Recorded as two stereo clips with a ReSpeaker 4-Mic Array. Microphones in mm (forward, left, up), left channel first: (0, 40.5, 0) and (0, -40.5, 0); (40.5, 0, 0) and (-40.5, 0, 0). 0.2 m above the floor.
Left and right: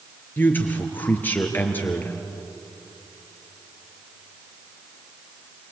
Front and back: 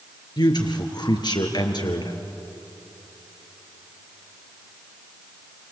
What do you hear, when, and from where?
0.4 s a man speaking: 25° left, 3 m